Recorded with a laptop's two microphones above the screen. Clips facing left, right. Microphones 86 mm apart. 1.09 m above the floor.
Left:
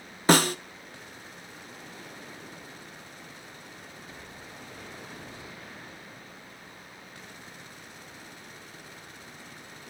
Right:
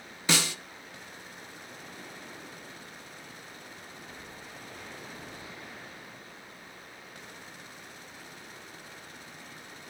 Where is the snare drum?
45° left (ahead or behind), 0.6 m.